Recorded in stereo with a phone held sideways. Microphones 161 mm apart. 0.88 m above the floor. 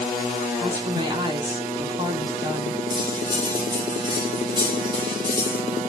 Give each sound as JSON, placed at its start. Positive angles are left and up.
{"t": 0.6, "sound": "a woman speaking", "side_deg": -25, "distance_m": 1.8}
{"t": 2.9, "sound": "cutlery clinking", "side_deg": -30, "distance_m": 2.5}